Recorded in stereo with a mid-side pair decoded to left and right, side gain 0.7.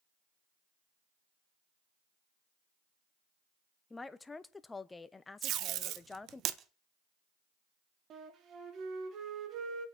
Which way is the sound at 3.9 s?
15° left.